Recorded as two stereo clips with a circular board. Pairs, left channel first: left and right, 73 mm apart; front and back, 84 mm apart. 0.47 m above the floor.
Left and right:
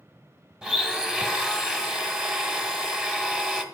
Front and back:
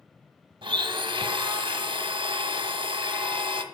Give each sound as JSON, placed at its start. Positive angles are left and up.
{"t": 0.6, "sound": "a blender", "azimuth_deg": -170, "distance_m": 1.0}